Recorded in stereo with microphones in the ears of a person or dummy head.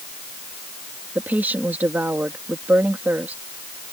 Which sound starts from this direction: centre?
A woman speaking, at 1.1 s.